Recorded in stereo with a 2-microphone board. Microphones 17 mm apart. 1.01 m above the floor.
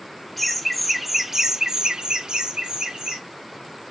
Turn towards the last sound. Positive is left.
turn(degrees=-50)  # may be behind; listen again after turning